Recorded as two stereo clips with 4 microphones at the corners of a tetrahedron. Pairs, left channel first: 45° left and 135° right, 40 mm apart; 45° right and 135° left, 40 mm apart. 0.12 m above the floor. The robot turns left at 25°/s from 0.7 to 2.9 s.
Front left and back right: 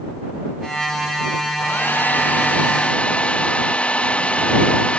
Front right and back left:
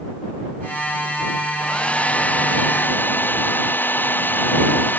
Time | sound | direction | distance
1.6 | a hair dryer | 20° left | ?